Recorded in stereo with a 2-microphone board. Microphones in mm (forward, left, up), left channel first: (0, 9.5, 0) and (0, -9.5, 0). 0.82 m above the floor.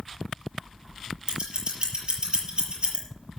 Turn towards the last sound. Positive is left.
turn(degrees=-50)  # may be behind; listen again after turning